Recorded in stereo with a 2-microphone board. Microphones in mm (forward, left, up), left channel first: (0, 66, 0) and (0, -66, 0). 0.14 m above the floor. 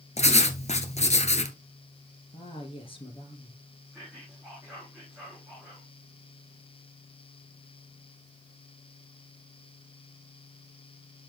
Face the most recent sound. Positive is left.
turn(degrees=-5)  # may be behind; listen again after turning